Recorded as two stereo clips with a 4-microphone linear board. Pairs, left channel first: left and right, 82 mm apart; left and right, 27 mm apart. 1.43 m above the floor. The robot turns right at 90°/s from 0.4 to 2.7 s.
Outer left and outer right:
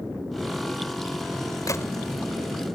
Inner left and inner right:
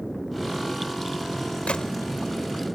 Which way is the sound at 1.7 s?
45° left (ahead or behind).